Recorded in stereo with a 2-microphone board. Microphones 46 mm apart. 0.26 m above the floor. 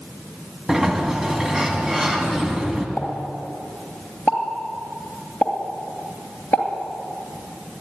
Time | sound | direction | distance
0.7 | a sliding door | 10° right (ahead or behind) | 1.5 m
3.0 | a pop | 40° left (ahead or behind) | 2.5 m